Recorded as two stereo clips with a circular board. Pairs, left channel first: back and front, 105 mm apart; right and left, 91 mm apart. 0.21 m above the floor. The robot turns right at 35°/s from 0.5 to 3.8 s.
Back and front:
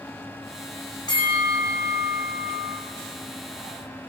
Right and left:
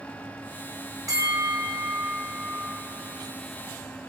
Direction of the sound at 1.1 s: 135° left.